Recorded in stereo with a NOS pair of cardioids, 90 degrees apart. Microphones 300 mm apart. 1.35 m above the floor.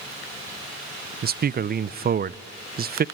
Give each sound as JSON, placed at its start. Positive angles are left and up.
{"t": 1.2, "sound": "a man speaking", "azimuth_deg": -35, "distance_m": 0.6}